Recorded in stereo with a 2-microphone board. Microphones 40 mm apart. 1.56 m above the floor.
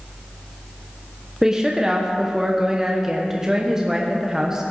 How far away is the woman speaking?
About 1.0 m.